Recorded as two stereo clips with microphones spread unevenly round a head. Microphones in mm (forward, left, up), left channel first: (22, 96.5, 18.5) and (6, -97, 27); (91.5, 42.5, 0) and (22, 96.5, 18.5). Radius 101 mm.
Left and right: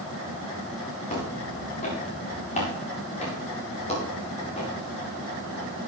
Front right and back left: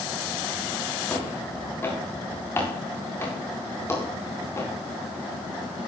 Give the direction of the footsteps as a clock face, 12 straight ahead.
11 o'clock.